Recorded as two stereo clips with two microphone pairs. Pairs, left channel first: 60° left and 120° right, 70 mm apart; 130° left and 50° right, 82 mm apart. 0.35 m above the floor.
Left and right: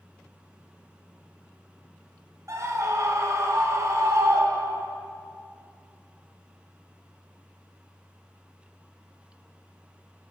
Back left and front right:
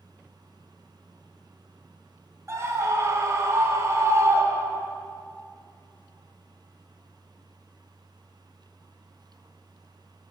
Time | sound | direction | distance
2.5 | a scream | 90° right | 1.7 m